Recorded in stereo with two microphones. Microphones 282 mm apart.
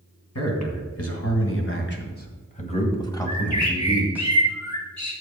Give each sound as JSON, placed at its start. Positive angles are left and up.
{"t": 0.3, "sound": "a man speaking", "side_deg": 60, "distance_m": 2.5}
{"t": 3.3, "sound": "a bird", "side_deg": 70, "distance_m": 2.5}